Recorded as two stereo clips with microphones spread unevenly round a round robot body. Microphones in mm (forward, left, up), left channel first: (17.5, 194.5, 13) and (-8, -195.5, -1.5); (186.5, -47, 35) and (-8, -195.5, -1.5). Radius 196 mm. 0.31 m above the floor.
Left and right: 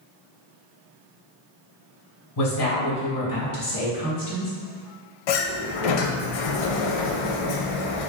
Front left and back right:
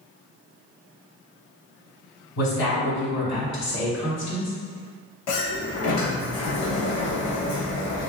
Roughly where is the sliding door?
Ahead left.